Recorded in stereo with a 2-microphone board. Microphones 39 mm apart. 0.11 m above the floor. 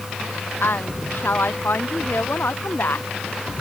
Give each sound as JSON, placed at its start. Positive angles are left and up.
{"t": 0.6, "sound": "a woman speaking", "side_deg": 65}